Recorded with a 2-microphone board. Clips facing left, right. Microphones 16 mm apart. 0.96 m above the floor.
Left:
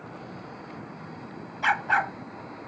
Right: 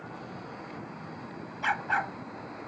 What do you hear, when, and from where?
1.6 s a dog barking: 20° left (ahead or behind)